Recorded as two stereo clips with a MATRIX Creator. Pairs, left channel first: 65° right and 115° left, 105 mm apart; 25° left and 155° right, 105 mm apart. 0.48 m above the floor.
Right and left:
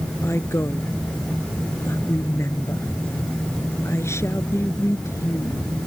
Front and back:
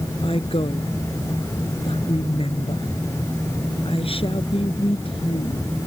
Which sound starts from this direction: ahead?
A woman speaking, at 0.2 s.